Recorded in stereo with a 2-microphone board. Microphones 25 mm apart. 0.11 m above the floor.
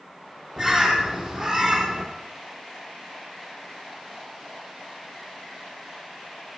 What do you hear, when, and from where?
0.6 s a bird: 10° right (ahead or behind), 3 m